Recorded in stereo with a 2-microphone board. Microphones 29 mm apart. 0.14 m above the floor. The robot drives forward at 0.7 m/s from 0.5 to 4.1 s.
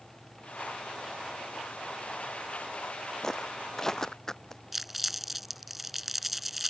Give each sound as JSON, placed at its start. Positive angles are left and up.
{"t": 3.2, "sound": "footsteps", "side_deg": 20}
{"t": 4.7, "sound": "crumpling", "side_deg": -5}